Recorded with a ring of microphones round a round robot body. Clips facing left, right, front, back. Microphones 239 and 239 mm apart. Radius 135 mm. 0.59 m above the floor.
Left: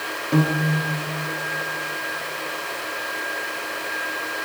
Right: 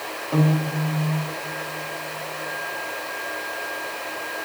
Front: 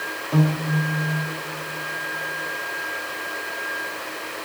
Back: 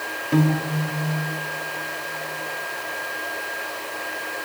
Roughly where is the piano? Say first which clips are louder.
Left 1 dB, back 2 dB; behind left.